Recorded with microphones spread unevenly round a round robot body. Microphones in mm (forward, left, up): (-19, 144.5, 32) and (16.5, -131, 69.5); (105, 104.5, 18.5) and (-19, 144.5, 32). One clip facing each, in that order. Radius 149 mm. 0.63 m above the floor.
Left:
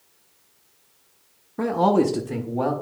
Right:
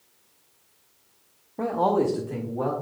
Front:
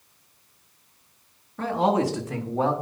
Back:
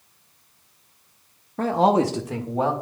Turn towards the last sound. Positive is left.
turn(degrees=75)